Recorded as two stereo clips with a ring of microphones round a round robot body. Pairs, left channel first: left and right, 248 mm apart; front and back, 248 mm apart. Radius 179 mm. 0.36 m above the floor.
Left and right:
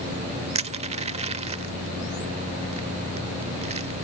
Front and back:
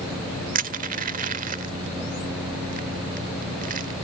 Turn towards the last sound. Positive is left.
turn(degrees=-145)